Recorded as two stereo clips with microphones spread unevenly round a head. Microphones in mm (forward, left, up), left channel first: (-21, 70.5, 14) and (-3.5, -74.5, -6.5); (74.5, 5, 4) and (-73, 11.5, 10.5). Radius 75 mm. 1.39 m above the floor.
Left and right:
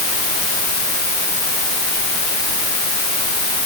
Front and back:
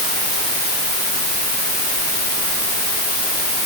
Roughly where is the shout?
No shout in this recording.